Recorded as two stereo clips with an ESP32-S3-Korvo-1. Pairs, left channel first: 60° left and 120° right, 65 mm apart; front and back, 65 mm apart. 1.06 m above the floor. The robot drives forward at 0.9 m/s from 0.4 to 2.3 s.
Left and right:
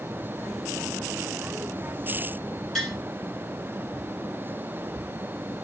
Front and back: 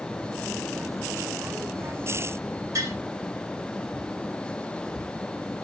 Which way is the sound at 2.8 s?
155° left.